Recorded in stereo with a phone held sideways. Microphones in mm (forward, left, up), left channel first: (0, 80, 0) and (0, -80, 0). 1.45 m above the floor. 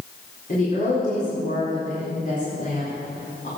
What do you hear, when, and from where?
0.5 s a woman speaking: 55° left (ahead or behind), 4.5 m